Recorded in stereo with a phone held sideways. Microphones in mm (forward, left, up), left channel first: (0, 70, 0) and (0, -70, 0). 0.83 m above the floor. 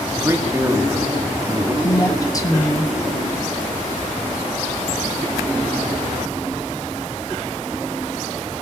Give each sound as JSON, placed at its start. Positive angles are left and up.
{"t": 0.1, "sound": "a man speaking", "side_deg": -20, "distance_m": 1.9}
{"t": 1.8, "sound": "a woman speaking", "side_deg": 25, "distance_m": 1.2}